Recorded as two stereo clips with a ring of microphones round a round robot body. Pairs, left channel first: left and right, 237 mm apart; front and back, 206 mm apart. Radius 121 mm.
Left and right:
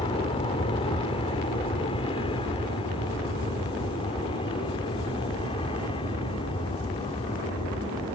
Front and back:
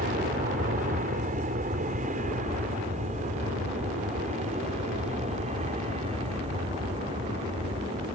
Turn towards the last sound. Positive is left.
turn(degrees=145)